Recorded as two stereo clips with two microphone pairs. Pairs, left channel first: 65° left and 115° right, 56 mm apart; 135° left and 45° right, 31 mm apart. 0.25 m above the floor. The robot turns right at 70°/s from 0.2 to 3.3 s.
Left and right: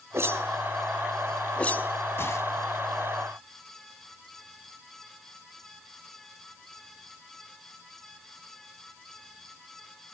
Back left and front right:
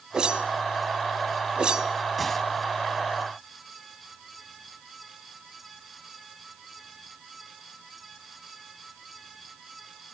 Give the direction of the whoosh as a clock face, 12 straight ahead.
3 o'clock.